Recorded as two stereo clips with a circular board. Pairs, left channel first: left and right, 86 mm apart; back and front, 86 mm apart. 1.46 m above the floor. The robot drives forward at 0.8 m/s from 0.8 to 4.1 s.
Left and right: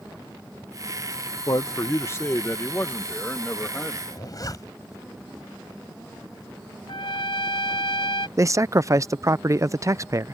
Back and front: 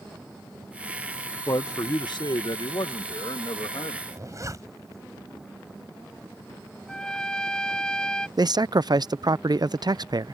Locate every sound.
1.5 s a man speaking: 135° left; by 4.0 s 165° left
4.1 s a zipper: 45° left
6.9 s a trumpet: 100° left
8.4 s a man speaking: 35° right